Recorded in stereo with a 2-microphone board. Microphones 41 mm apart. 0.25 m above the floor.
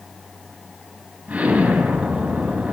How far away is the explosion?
About 3 m.